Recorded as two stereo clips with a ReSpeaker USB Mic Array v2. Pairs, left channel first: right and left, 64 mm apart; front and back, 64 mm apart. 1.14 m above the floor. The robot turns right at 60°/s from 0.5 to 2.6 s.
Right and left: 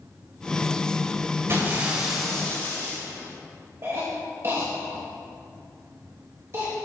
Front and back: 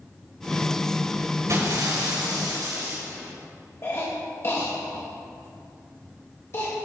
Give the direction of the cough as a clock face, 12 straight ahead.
10 o'clock.